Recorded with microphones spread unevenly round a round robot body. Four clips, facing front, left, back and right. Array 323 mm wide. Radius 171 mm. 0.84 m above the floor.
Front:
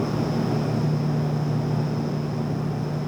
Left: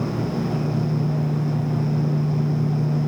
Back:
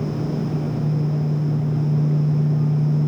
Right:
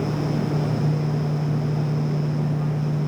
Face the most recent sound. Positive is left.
No sound to turn to.